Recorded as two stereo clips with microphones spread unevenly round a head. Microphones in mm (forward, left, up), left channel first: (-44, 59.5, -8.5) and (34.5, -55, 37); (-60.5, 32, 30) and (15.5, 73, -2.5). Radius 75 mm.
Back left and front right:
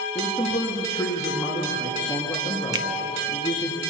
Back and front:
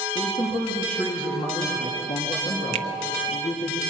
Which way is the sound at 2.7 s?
5° left.